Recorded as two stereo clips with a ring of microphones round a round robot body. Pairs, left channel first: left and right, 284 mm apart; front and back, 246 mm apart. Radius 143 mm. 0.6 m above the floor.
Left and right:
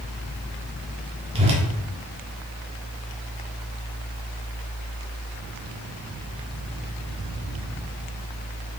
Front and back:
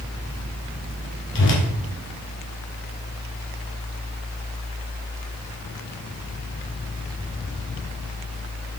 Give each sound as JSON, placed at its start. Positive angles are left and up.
{"t": 1.4, "sound": "a whoosh", "azimuth_deg": -25, "distance_m": 1.6}